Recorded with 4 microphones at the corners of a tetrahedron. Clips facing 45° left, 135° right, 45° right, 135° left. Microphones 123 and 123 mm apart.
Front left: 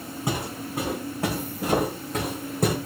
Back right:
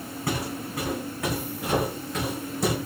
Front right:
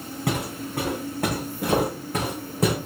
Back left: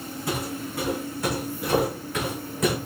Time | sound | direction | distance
0.3 | footsteps | 25° right | 5 m